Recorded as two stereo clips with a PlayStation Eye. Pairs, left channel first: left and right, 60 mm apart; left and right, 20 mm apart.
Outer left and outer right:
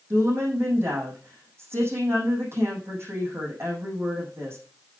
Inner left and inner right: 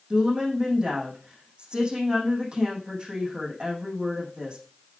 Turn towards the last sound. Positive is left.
turn(degrees=-45)  # may be behind; listen again after turning